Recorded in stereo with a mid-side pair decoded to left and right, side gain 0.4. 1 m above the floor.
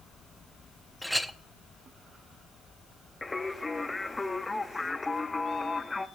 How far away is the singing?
About 0.7 m.